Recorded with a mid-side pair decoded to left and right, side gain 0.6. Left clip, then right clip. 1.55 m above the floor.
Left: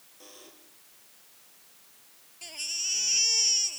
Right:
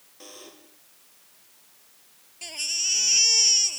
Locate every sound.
0.2 s a buzzer: 30° right
2.4 s a baby crying: 25° right